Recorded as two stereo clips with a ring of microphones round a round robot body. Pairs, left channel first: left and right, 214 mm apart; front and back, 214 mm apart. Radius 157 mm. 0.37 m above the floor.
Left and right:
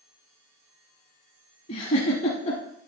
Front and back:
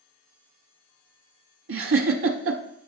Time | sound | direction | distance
1.7 | a giggle | 160° left | 0.9 m